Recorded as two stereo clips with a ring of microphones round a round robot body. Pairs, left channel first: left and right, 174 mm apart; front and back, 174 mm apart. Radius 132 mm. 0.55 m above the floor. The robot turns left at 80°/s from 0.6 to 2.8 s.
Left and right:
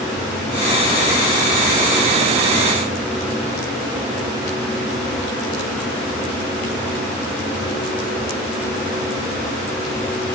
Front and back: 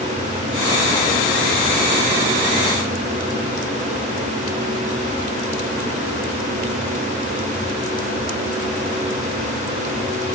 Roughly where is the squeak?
No squeak in this recording.